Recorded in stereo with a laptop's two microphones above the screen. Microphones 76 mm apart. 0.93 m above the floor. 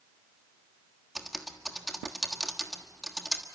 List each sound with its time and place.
1.1 s typing on a keyboard: centre (ahead or behind), 1.4 m